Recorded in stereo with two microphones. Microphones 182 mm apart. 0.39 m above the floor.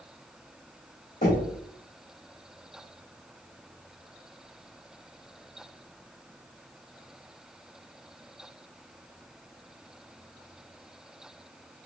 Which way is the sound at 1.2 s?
55° left (ahead or behind).